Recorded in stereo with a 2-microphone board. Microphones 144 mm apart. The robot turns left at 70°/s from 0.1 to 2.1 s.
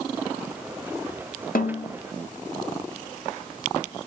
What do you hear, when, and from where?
1.6 s a snare drum: 80° left, 2.5 m; by 1.9 s 60° left (ahead or behind), 2.5 m